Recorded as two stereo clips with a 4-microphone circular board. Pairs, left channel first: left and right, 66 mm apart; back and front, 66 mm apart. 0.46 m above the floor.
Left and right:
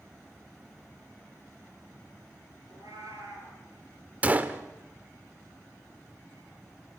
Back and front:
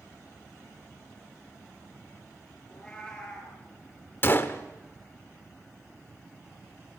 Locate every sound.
2.7 s a cat meowing: 105° right, 5 m
4.2 s a gunshot: 140° right, 0.9 m